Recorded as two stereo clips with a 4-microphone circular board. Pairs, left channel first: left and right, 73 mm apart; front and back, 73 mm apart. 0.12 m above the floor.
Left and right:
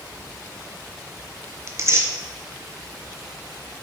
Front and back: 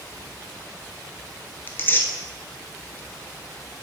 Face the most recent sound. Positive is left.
turn(degrees=-55)